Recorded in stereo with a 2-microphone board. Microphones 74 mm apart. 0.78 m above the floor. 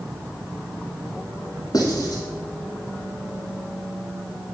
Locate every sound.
1.7 s writing: 60° left (ahead or behind), 1.4 m